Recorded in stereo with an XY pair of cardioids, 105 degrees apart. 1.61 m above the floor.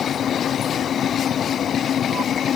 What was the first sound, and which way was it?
Only background noise.